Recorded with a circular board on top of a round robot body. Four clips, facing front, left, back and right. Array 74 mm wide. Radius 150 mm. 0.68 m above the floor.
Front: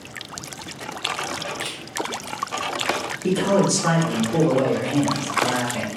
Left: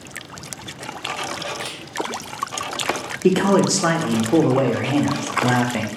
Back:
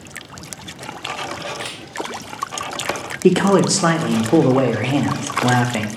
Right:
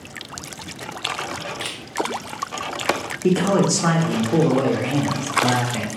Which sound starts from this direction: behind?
A man speaking, at 3.2 s.